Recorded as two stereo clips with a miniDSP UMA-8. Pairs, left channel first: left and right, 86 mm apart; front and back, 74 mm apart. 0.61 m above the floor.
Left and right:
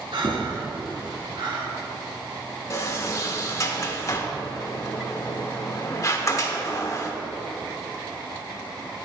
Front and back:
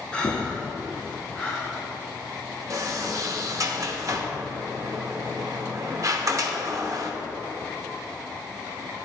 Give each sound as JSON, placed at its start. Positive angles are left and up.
{"t": 0.1, "sound": "breathing", "azimuth_deg": -75, "distance_m": 1.3}
{"t": 2.7, "sound": "a sliding door", "azimuth_deg": 140, "distance_m": 0.8}